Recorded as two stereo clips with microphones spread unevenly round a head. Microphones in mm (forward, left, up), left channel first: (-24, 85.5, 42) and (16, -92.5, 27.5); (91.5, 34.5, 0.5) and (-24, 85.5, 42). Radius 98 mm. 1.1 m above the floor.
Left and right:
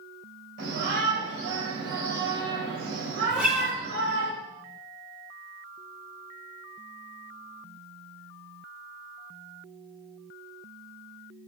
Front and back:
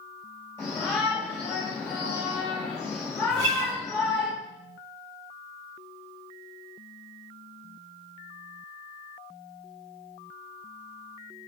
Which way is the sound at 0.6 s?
95° right.